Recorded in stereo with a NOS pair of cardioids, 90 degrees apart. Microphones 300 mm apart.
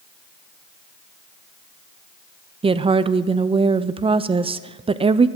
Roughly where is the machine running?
I don't hear a machine running.